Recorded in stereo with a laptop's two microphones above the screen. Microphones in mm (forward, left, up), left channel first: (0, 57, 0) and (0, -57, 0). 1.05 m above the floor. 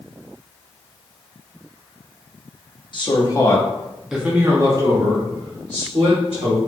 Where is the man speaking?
45° left (ahead or behind), 1.0 m; by 6.6 s 60° right (ahead or behind), 2 m.